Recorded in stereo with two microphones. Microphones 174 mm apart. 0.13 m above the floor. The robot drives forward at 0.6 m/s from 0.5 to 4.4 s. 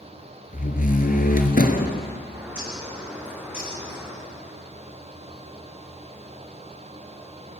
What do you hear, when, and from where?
0.5 s a door slam: 50° left (ahead or behind), 2.0 m; by 2.0 s 55° left (ahead or behind), 1.9 m
2.3 s a bird: 10° right (ahead or behind), 8.5 m